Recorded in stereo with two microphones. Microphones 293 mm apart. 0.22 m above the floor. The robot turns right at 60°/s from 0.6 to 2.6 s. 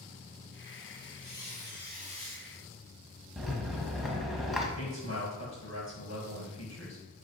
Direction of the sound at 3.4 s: Centre (ahead or behind).